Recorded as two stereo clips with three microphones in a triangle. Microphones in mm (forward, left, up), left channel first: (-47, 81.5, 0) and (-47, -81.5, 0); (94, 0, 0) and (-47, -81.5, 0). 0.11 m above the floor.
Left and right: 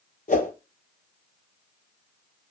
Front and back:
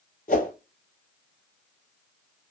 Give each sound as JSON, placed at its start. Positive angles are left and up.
{"t": 0.3, "sound": "a whoosh", "azimuth_deg": 60, "distance_m": 0.7}